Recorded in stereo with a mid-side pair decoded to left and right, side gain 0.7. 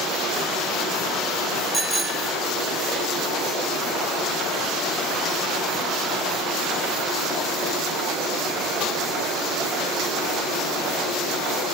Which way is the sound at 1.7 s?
15° right.